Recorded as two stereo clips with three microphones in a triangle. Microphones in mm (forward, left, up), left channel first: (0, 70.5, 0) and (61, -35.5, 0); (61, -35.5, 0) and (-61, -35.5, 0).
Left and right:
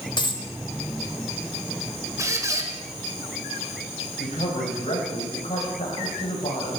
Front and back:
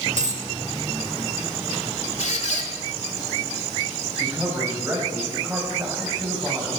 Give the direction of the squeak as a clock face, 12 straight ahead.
12 o'clock.